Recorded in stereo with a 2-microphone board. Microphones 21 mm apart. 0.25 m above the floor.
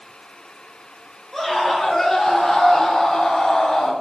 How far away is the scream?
About 5 m.